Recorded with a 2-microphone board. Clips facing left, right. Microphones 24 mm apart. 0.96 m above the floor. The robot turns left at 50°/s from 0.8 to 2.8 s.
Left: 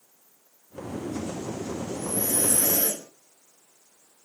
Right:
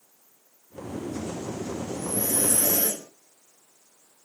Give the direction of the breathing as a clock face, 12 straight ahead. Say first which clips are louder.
Even; 10 o'clock.